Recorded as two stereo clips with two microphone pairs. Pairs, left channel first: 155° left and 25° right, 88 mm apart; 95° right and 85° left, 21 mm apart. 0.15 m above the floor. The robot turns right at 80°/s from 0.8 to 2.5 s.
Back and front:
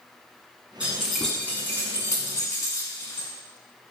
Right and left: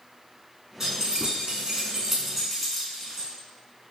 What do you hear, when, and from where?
0.8 s keys jangling: 40° left, 0.9 m; by 3.3 s 175° left, 0.9 m